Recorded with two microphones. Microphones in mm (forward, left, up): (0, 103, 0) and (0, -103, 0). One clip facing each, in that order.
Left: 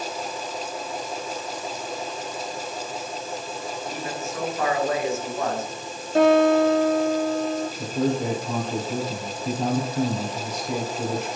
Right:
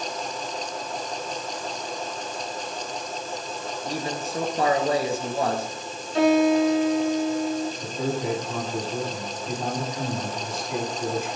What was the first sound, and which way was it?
A man speaking, 35° right (ahead or behind).